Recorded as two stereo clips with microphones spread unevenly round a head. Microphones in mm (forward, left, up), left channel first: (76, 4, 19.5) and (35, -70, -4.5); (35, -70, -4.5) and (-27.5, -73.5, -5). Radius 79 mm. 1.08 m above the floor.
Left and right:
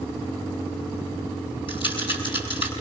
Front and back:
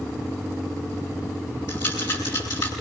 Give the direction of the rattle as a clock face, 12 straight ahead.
10 o'clock.